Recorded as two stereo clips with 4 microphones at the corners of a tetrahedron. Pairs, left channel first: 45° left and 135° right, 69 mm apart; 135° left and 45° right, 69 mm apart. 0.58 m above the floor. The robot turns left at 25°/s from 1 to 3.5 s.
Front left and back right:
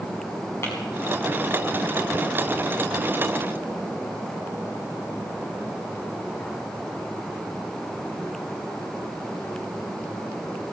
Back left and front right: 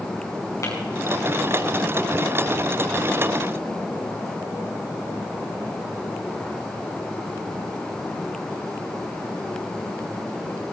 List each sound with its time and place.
0.6 s tapping: 95° left, 5.5 m